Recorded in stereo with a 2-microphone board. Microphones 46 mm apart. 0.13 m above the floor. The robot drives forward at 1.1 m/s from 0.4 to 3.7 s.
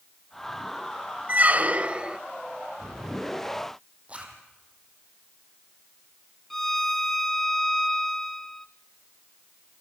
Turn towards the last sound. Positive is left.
turn(degrees=10)  # may be behind; listen again after turning